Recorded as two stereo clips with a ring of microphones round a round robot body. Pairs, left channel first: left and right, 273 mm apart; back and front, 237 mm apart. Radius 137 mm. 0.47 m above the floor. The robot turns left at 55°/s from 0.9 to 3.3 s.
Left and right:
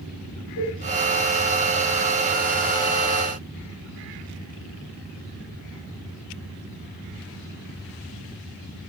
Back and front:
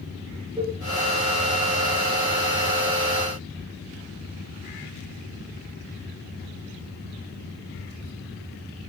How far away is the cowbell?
About 3.5 m.